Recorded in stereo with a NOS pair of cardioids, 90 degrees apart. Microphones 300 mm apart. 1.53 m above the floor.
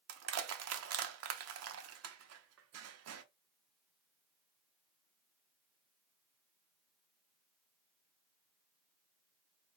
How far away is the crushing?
About 0.8 m.